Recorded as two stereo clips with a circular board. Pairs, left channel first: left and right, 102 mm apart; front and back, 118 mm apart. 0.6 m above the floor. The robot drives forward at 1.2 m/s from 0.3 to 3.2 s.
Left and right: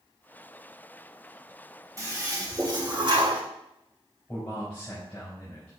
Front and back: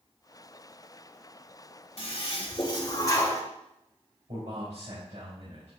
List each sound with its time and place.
2.0 s a toilet flushing: 35° right, 3 m; by 3.4 s 65° right, 1.9 m
4.3 s a man speaking: 160° left, 3.5 m